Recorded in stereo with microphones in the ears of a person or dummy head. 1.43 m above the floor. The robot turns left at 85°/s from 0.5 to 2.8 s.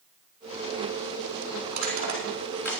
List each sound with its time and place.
1.7 s crushing: 65° right (ahead or behind), 4 m; by 2.8 s 25° left (ahead or behind), 4 m